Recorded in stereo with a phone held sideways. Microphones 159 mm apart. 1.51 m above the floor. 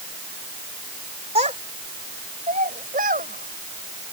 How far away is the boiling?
No boiling in this recording.